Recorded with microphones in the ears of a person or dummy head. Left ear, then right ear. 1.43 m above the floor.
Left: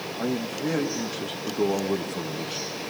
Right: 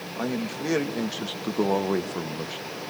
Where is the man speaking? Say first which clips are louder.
Even; 75° right (ahead or behind), 2 m; by 2.8 s 15° right (ahead or behind), 0.9 m.